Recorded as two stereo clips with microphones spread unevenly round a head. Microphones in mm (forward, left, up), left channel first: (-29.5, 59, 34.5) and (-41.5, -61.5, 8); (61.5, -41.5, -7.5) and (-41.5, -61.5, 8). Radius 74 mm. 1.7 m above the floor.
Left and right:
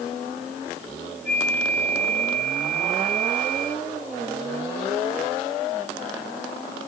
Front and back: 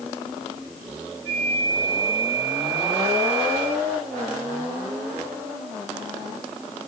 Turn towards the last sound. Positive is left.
turn(degrees=75)